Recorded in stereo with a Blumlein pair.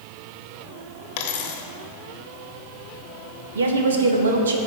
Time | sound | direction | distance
1.2 | a dropped coin | 45° left | 1.0 m
3.5 | a woman speaking | 65° right | 1.0 m